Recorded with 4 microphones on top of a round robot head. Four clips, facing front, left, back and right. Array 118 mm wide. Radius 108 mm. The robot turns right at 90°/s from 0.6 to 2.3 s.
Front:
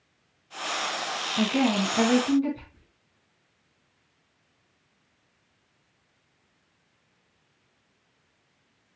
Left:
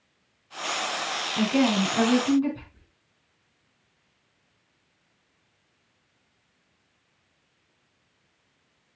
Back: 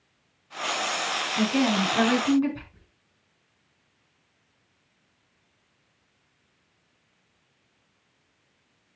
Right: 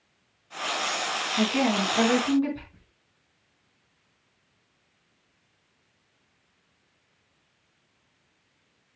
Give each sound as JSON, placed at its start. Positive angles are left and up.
{"t": 1.4, "sound": "a woman speaking", "azimuth_deg": 95, "distance_m": 4.5}
{"t": 2.7, "sound": "whispering", "azimuth_deg": -130, "distance_m": 3.5}